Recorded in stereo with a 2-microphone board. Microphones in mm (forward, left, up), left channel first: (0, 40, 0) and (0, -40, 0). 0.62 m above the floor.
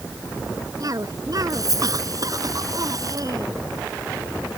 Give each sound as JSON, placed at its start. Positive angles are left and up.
{"t": 0.8, "sound": "a cough", "side_deg": -50}